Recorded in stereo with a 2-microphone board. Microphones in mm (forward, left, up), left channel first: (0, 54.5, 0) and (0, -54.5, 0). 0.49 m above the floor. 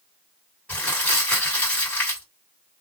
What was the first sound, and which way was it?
Crumpling, 15° left (ahead or behind).